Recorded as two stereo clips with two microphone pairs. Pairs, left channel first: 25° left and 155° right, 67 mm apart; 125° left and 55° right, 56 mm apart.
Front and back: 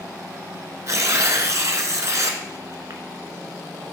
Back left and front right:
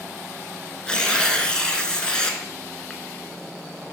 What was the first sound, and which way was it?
Tearing paper, 165° right.